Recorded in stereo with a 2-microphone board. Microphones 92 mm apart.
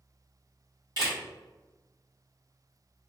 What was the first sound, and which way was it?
A camera shutter, 50° right (ahead or behind).